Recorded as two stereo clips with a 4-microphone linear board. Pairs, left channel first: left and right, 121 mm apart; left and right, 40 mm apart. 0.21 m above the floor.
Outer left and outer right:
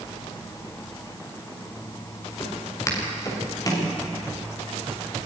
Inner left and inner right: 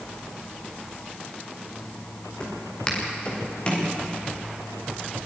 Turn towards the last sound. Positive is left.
turn(degrees=30)  # may be behind; listen again after turning